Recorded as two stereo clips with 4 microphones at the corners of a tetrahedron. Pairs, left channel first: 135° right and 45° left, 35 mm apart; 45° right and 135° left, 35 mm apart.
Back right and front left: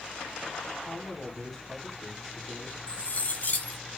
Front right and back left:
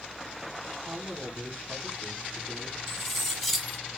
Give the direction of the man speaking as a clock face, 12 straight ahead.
7 o'clock.